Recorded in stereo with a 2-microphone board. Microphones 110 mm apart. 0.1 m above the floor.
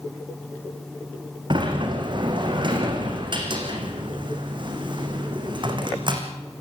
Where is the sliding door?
50° right (ahead or behind), 4 m.